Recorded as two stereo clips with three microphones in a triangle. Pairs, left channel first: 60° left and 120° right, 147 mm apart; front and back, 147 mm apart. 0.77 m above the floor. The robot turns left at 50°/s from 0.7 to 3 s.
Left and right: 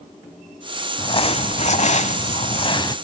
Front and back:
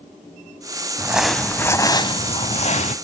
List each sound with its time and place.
1.0 s crumpling: 105° left, 0.9 m; by 3.0 s 5° left, 0.9 m